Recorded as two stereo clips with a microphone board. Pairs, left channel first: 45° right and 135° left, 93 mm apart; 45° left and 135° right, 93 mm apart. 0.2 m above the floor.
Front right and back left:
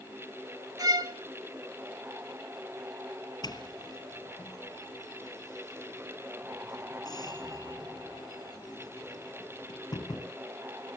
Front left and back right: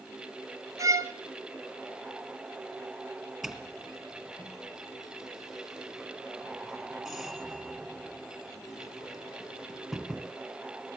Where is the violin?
175° left, 1.2 m.